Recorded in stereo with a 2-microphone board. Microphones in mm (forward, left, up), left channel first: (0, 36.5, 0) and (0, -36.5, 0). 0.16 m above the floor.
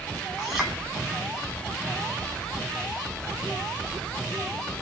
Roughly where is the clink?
Centre.